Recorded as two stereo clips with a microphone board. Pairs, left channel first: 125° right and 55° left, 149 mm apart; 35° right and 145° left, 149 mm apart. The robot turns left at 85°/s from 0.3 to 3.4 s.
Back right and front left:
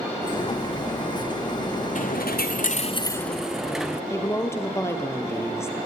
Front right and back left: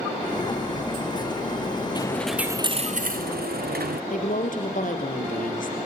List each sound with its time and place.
1.9 s a dropped coin: 95° right, 1.2 m; by 4.0 s 145° left, 1.2 m
4.1 s a woman speaking: 55° right, 3 m